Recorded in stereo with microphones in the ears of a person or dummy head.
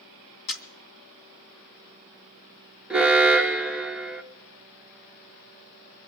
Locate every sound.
0.5 s a camera shutter: 65° left (ahead or behind), 2.5 m
2.9 s an alarm: 5° right (ahead or behind), 1.0 m